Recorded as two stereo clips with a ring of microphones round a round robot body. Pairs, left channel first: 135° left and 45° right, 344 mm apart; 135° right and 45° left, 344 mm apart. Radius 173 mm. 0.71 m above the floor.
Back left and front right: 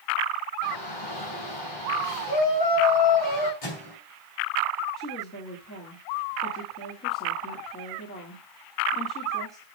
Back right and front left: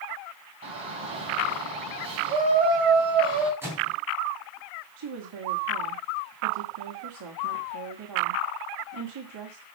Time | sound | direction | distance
0.6 | a shout | 120° left | 5.5 m
3.6 | a microwave | 130° left | 4 m
5.0 | a woman speaking | 75° left | 2.0 m